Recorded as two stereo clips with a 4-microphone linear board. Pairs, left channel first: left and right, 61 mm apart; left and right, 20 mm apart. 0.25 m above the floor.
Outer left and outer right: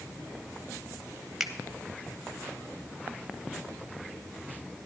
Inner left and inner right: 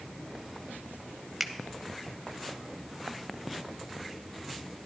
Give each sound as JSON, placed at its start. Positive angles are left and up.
{"t": 1.4, "sound": "a finger snap", "side_deg": -5, "distance_m": 0.9}